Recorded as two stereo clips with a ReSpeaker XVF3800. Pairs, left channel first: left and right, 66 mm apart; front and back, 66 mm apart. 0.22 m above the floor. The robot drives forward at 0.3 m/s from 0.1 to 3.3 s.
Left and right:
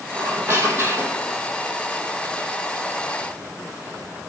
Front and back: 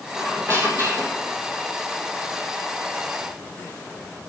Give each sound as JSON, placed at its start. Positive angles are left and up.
{"t": 0.1, "sound": "a squeak", "azimuth_deg": -135, "distance_m": 2.5}